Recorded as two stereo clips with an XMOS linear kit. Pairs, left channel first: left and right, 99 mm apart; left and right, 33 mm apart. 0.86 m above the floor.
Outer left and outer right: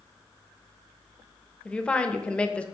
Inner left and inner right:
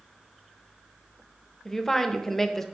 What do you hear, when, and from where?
1.6 s a woman speaking: 10° left (ahead or behind), 0.5 m